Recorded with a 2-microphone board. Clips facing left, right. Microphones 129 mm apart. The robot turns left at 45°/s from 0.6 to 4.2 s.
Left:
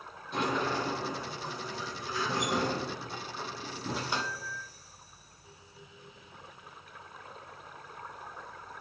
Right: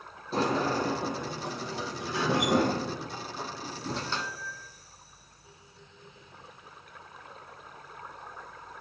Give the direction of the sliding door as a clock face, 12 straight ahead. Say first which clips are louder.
Right 4 dB; 1 o'clock.